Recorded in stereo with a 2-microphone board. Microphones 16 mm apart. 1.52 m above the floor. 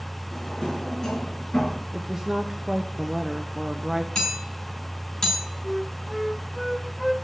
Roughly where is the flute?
Centre.